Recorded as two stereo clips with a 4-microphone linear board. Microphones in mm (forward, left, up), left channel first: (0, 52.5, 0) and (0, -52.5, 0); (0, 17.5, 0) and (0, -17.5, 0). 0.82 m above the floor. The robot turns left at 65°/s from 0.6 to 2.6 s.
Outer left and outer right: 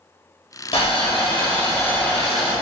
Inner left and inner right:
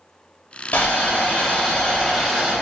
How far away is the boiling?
About 0.9 m.